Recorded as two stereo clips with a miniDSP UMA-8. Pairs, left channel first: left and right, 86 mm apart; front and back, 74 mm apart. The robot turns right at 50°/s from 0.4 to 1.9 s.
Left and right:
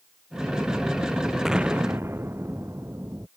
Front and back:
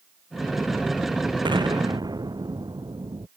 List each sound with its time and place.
1.4 s an explosion: 175° right; by 3.3 s 150° right